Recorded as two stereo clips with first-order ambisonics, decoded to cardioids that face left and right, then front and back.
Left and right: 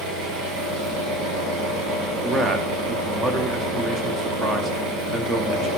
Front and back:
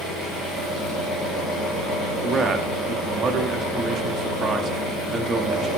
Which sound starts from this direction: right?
An engine running, at 0.0 s.